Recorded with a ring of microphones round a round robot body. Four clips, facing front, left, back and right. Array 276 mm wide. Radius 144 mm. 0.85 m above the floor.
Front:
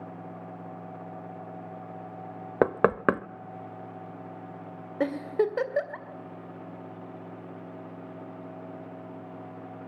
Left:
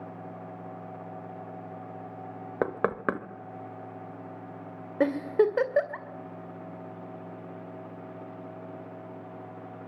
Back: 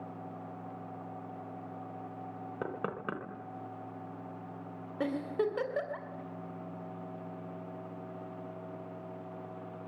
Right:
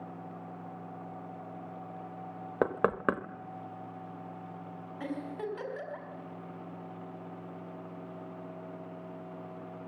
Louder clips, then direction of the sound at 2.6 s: Even, front 16 dB; 5° left.